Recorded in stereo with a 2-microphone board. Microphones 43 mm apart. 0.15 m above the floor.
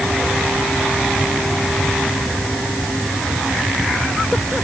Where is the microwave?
I don't hear a microwave.